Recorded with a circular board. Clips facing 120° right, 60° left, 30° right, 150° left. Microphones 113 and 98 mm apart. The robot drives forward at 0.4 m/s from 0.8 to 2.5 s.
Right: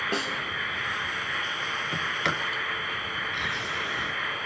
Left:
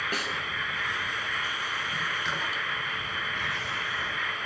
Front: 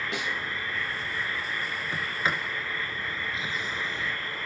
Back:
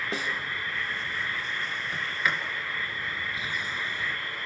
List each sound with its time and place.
0.1 s a snare drum: 170° right, 1.9 m
1.9 s a sliding door: 95° right, 3 m; by 4.1 s 100° right, 3.5 m